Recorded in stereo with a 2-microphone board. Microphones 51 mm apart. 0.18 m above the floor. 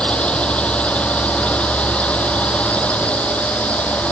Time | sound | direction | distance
0.0 | a drone | 25° left (ahead or behind) | ?